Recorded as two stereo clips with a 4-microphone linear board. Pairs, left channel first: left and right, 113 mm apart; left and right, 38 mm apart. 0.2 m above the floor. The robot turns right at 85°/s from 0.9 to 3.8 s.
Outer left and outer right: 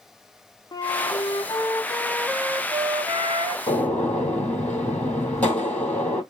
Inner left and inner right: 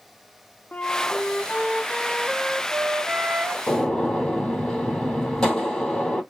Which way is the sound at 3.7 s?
25° left (ahead or behind).